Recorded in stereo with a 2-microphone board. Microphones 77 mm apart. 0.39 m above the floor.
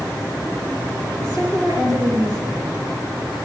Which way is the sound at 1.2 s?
60° right (ahead or behind).